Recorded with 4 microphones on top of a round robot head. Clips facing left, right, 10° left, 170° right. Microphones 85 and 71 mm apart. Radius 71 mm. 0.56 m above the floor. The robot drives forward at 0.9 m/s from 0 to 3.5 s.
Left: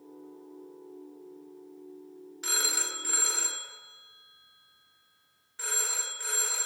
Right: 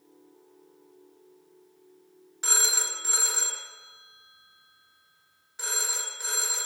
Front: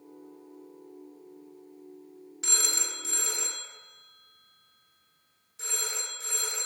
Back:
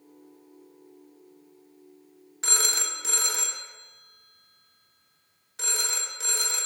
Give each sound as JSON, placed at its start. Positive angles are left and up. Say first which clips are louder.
{"t": 2.4, "sound": "a phone ringing", "louder": "right 3 dB, back 4 dB", "azimuth_deg": -135, "distance_m": 0.8}